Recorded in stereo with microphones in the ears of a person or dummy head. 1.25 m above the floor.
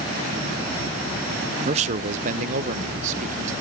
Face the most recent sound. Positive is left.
turn(degrees=-45)  # may be behind; listen again after turning